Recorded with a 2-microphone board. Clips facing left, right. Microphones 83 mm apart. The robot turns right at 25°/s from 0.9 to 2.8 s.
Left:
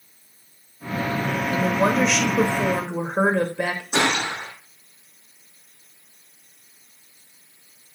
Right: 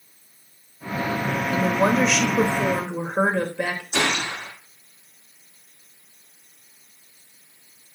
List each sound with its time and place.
1.5 s a woman speaking: 10° right, 1.5 m; by 3.8 s 20° left, 1.5 m
3.9 s a gunshot: 55° left (ahead or behind), 5.5 m